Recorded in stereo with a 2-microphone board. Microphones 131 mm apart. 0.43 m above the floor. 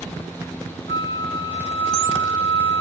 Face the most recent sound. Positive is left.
turn(degrees=40)  # may be behind; listen again after turning